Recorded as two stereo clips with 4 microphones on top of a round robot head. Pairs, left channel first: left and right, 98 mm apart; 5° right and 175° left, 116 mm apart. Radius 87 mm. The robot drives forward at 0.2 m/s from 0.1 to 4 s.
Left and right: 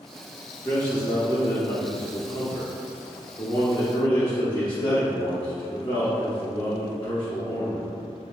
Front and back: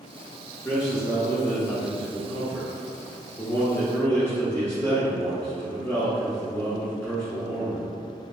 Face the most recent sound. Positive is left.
turn(degrees=70)